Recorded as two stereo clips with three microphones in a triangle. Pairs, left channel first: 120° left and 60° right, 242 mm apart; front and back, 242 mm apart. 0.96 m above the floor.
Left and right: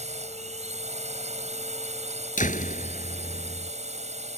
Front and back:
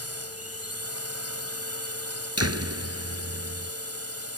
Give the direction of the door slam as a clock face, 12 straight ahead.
6 o'clock.